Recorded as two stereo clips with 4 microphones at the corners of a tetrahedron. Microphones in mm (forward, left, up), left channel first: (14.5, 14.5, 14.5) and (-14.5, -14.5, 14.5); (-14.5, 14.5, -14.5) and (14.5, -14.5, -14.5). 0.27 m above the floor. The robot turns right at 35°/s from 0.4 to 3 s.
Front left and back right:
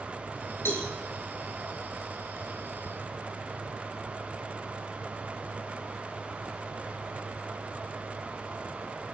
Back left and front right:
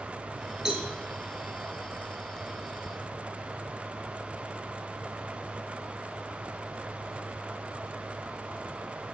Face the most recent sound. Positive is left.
turn(degrees=115)